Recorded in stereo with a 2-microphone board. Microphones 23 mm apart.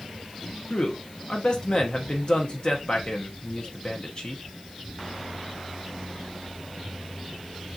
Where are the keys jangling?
No keys jangling in this recording.